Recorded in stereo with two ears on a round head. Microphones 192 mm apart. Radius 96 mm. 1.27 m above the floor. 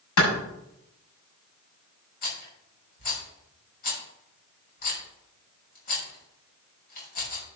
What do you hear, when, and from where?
0.2 s a clap: 80° left, 6.5 m
2.2 s a rattle: 45° left (ahead or behind), 6 m